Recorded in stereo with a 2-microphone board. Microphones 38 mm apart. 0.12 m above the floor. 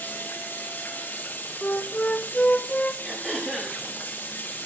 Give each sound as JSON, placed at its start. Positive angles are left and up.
{"t": 0.0, "sound": "running water", "side_deg": 75, "distance_m": 6.5}
{"t": 1.6, "sound": "a flute", "side_deg": 40, "distance_m": 1.7}
{"t": 3.0, "sound": "throat clearing", "side_deg": -5, "distance_m": 8.0}